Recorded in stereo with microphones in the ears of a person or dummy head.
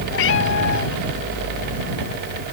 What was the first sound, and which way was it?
A cat meowing, 75° left (ahead or behind).